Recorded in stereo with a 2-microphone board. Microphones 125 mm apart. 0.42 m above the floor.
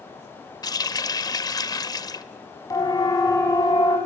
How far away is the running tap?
About 0.8 m.